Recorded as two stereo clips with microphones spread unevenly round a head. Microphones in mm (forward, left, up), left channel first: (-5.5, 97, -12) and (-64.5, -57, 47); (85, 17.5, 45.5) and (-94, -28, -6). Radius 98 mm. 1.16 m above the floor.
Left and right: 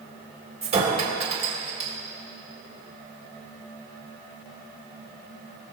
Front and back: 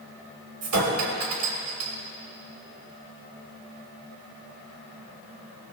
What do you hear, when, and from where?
0.6 s a clink: 165° right, 3.5 m